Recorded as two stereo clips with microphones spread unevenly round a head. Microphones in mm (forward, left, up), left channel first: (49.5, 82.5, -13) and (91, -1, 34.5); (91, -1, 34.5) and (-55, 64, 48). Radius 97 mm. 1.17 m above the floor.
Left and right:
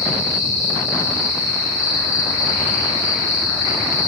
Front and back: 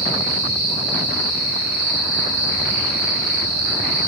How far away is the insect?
About 2 m.